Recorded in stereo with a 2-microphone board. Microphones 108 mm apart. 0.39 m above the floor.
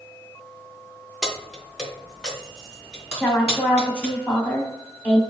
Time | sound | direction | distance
1.2 | keys jangling | centre (ahead or behind) | 0.8 m
3.1 | a woman speaking | 10° left (ahead or behind) | 1.1 m